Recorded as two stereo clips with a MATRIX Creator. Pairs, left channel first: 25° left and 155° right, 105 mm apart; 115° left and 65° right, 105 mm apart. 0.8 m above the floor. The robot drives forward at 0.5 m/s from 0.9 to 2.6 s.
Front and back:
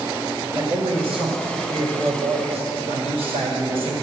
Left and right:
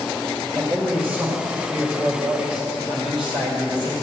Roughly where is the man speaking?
Behind right.